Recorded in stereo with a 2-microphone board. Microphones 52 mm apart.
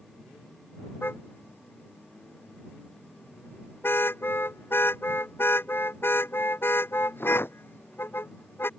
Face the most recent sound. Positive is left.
turn(degrees=40)  # may be behind; listen again after turning